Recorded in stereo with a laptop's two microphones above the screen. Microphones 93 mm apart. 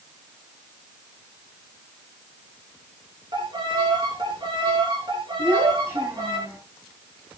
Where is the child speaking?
30° right (ahead or behind), 8.5 m.